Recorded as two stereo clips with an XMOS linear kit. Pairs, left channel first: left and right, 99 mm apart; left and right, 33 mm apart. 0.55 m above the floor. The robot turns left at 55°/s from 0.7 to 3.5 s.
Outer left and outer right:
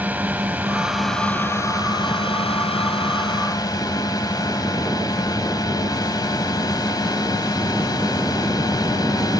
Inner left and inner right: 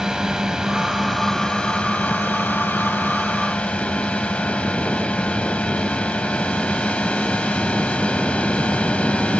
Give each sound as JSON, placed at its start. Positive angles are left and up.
{"t": 0.0, "sound": "a drone", "azimuth_deg": -160}